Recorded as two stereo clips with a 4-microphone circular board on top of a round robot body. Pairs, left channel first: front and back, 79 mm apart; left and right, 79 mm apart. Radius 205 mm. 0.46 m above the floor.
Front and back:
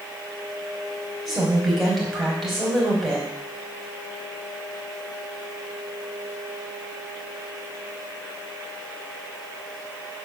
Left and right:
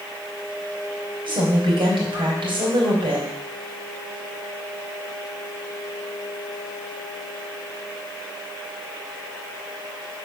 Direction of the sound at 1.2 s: 90° right.